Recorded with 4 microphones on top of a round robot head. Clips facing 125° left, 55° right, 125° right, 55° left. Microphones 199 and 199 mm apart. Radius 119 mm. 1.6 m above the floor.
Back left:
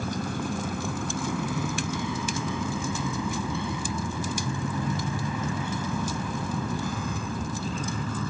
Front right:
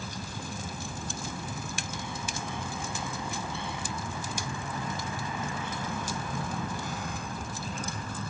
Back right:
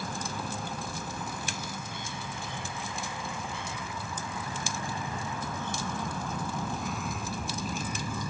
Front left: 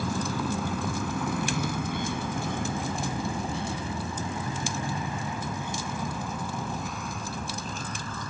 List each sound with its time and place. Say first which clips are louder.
0.0 s a vehicle: back left 9 dB, front left 7 dB; 80° left; by 8.3 s 155° left